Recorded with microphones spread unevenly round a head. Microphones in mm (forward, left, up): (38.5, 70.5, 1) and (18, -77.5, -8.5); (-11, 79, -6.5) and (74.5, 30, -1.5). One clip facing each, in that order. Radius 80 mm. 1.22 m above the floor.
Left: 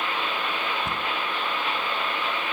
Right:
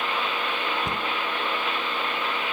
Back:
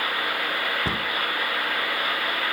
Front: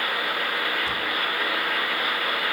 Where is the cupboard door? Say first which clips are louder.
Right 1 dB, back 1 dB; 175° right, 0.7 m.